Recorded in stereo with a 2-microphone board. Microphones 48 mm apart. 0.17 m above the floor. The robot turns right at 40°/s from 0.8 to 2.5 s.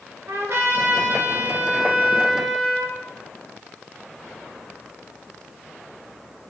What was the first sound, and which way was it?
A trumpet, 75° right.